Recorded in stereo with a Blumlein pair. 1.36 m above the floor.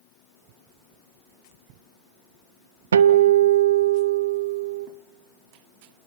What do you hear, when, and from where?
2.9 s a guitar: 65° right, 0.6 m